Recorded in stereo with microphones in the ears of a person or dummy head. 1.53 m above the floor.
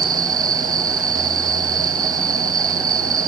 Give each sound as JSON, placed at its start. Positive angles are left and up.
{"t": 0.0, "sound": "an insect", "side_deg": -20}